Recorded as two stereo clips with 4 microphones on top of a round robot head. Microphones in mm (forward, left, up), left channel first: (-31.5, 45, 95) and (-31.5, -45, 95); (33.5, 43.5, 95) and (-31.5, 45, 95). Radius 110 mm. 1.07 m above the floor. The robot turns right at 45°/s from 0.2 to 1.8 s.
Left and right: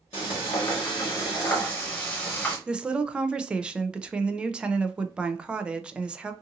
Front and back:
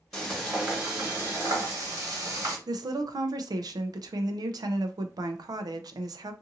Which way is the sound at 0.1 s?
90° left.